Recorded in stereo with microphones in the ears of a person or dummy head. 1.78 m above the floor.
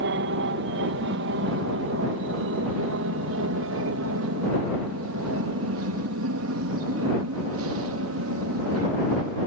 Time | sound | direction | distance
0.0 | an aircraft | 55° right (ahead or behind) | ?